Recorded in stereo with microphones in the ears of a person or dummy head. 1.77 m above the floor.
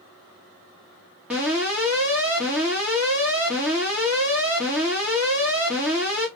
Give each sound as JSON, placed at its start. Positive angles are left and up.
{"t": 1.3, "sound": "an alarm", "side_deg": -5, "distance_m": 1.2}